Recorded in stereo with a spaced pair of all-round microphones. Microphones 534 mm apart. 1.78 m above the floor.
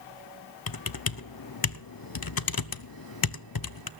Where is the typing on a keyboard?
40° left (ahead or behind), 0.7 m.